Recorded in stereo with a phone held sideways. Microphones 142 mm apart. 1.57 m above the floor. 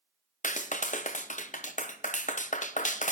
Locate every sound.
0.4 s a clap: 60° left (ahead or behind), 0.7 m